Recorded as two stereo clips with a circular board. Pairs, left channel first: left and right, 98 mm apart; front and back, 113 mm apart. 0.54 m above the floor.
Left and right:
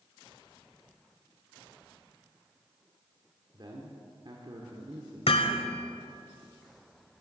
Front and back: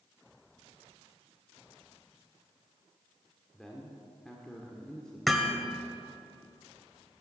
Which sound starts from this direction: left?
Hammering, at 5.3 s.